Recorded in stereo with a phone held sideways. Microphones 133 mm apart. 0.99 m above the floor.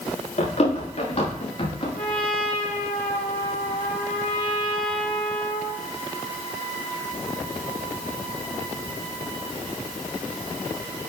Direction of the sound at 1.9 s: 75° left (ahead or behind).